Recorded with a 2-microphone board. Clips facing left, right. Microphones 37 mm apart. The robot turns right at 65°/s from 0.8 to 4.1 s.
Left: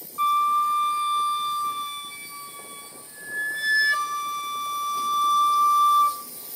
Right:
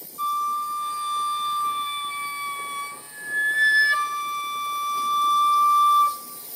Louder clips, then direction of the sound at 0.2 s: Left 4 dB; 135° left.